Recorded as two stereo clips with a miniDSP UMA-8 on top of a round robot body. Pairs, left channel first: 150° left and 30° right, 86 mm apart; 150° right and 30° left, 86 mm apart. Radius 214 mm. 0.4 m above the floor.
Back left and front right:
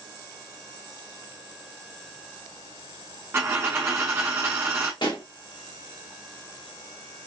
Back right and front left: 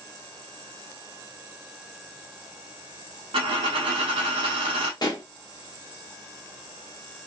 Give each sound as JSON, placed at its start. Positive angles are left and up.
{"t": 3.3, "sound": "a dropped coin", "azimuth_deg": 35, "distance_m": 0.5}
{"t": 5.0, "sound": "a pop", "azimuth_deg": 175, "distance_m": 1.6}